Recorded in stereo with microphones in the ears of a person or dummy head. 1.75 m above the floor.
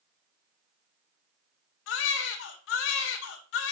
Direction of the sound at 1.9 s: 65° left (ahead or behind).